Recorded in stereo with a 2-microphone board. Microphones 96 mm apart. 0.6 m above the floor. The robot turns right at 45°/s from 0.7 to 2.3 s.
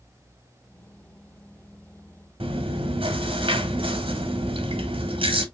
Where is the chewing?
85° right, 1.1 m.